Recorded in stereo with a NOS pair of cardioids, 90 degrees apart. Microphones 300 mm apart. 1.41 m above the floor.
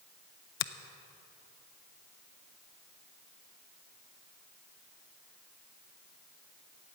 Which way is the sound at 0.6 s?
40° left.